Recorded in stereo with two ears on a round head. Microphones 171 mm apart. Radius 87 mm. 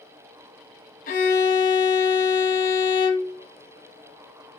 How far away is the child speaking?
No child speaking in this recording.